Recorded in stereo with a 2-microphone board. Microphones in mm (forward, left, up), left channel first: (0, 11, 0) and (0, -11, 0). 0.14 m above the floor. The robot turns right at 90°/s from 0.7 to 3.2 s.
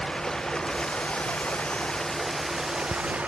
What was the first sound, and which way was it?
Running water, 25° left.